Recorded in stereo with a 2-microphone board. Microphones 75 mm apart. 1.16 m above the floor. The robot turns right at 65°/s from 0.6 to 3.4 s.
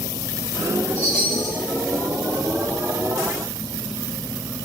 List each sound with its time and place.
0.9 s a chime: 30° right, 5.5 m; by 1.6 s 10° left, 5.5 m